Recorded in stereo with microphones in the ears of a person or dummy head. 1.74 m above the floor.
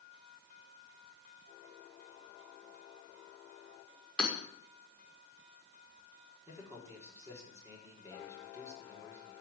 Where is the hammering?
10° left (ahead or behind), 5.5 m.